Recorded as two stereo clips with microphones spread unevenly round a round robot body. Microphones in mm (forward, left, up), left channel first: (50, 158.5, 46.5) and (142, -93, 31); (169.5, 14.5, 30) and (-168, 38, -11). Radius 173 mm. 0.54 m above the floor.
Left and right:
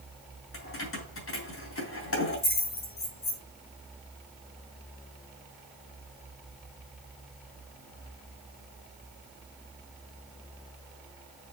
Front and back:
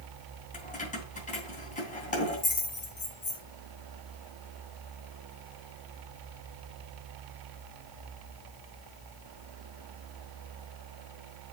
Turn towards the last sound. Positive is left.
turn(degrees=65)